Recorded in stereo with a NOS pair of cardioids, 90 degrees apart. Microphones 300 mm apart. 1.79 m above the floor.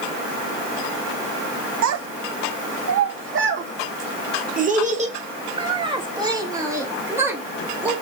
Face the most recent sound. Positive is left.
turn(degrees=-5)